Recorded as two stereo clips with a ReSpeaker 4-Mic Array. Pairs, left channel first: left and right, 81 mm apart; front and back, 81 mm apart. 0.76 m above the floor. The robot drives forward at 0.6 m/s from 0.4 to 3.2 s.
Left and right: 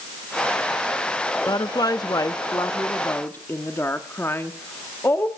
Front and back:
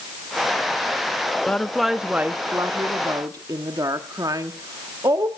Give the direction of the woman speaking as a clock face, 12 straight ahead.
10 o'clock.